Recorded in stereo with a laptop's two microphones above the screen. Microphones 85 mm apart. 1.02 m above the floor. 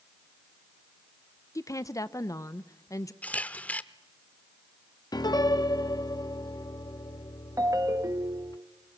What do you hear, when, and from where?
1.6 s a woman speaking: 40° left (ahead or behind), 0.6 m
3.2 s a camera shutter: 15° left (ahead or behind), 0.7 m
5.1 s a piano: 55° left (ahead or behind), 0.6 m
7.6 s a ringtone: 40° right (ahead or behind), 0.9 m